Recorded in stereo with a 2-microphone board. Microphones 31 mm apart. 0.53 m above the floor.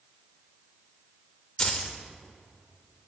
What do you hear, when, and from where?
1.6 s keys jangling: 25° left (ahead or behind), 1.0 m